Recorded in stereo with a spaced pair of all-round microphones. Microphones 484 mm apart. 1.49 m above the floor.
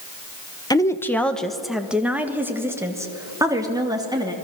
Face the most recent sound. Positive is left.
turn(degrees=-10)  # may be behind; listen again after turning